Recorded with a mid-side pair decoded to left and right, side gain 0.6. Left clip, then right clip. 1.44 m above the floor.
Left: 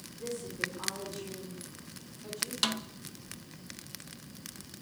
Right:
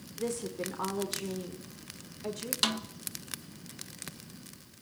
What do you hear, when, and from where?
0.2 s a woman speaking: 50° right, 5 m
2.6 s a snare drum: 5° right, 1.5 m